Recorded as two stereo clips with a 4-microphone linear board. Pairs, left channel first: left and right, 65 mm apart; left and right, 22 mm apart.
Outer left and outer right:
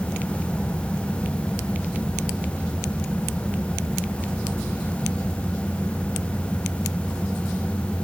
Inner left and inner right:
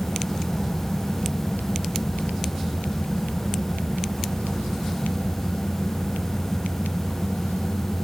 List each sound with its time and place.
Only background noise.